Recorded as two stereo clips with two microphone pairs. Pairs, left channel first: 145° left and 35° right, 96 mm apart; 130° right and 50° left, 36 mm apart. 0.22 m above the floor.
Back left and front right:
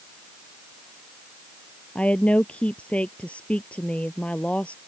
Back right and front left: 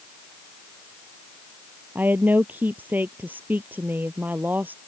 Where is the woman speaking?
70° left.